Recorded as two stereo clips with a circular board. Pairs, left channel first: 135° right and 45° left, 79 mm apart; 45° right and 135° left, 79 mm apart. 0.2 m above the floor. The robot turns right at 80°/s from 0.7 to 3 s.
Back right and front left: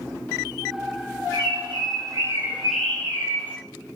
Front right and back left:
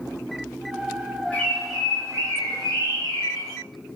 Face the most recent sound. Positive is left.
turn(degrees=155)